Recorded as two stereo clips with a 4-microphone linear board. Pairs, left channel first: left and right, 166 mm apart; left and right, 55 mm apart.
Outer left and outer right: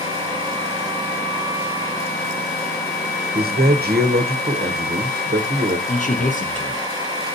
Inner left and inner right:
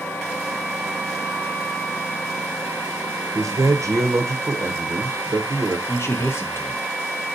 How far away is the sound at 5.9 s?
About 0.7 m.